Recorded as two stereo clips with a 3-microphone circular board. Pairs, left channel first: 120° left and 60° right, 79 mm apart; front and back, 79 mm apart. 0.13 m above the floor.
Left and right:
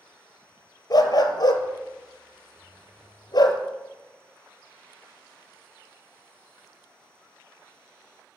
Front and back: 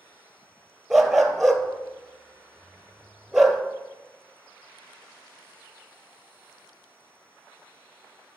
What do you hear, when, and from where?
0.9 s a dog barking: 95° left, 0.8 m